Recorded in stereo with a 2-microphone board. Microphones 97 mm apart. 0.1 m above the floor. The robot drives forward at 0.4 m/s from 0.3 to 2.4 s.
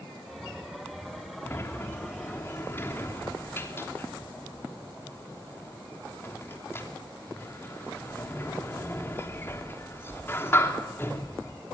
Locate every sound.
1.4 s a sliding door: 25° left (ahead or behind), 3 m